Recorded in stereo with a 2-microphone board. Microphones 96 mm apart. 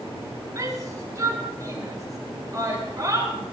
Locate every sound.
0.6 s a shout: 35° right (ahead or behind), 5 m